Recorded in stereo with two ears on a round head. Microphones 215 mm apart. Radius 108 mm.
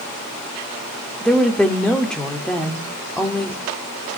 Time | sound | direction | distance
1.2 | a woman speaking | 5° left (ahead or behind) | 1.9 m